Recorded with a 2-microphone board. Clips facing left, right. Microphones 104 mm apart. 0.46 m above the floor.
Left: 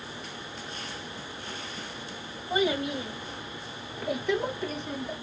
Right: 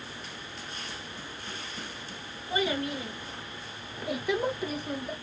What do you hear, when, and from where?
2.5 s a child speaking: 20° left (ahead or behind), 1.2 m; by 5.1 s 15° right (ahead or behind), 1.2 m